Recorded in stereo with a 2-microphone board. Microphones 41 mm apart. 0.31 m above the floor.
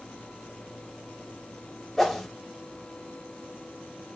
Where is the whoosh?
5° left (ahead or behind), 0.5 m.